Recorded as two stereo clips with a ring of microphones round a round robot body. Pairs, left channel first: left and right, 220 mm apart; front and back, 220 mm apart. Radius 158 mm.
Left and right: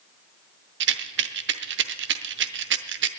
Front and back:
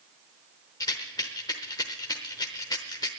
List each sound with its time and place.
0.8 s a rattle: 75° right, 0.7 m